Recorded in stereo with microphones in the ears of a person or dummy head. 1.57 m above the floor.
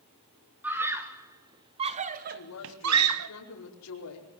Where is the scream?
10° right (ahead or behind), 3.5 m; by 3.3 s 70° right (ahead or behind), 1.6 m.